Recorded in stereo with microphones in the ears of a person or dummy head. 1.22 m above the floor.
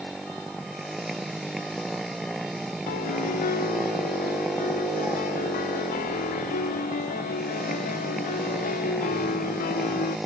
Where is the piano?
45° left (ahead or behind).